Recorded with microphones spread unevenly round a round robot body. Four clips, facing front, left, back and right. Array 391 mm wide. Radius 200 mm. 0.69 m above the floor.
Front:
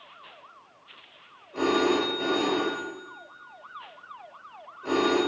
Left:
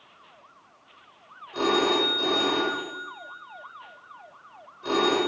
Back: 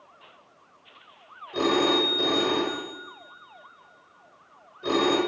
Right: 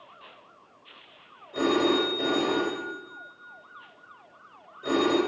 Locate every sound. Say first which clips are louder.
1.5 s a phone ringing: even, back 1 dB; 175° left, 6 m